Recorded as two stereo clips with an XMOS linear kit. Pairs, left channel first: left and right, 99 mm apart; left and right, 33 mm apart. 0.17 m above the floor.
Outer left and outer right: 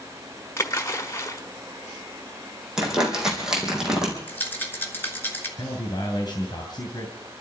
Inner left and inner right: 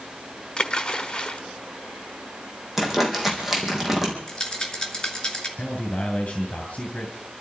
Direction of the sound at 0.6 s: 25° left (ahead or behind).